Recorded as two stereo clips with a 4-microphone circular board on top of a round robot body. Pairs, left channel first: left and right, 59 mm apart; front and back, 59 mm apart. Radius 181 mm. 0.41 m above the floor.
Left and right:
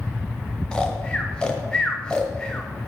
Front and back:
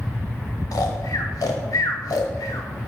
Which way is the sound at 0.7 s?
15° left.